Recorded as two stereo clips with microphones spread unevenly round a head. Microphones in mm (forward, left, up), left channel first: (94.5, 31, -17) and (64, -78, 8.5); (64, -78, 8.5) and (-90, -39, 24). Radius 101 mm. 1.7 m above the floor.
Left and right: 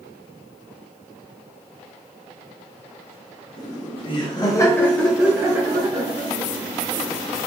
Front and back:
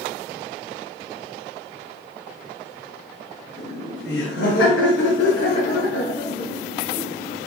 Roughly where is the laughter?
Ahead left.